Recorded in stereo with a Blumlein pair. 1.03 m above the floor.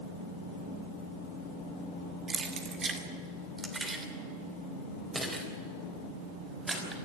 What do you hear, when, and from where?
2.3 s keys jangling: 20° right, 1.8 m; by 7.0 s 10° right, 5 m